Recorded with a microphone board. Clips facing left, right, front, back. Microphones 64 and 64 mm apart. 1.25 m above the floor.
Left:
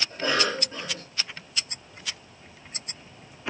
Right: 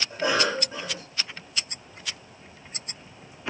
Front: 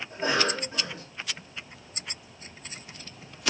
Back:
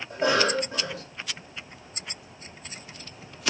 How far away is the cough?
About 2 m.